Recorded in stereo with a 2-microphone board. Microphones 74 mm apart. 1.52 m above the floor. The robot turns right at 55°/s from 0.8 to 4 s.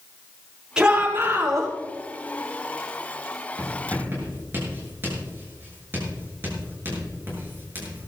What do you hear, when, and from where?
0.8 s a shout: 170° right, 6 m; by 1.7 s 120° right, 6 m
3.6 s writing: 50° right (ahead or behind), 6 m; by 8.1 s 30° right (ahead or behind), 6 m